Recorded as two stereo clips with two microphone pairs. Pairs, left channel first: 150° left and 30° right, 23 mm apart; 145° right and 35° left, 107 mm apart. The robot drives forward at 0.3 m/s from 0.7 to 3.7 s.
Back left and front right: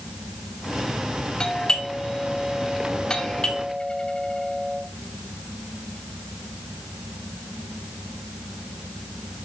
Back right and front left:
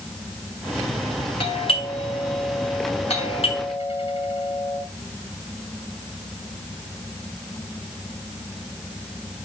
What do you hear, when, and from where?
1.4 s a doorbell: 160° right, 3 m; by 4.8 s 165° right, 4 m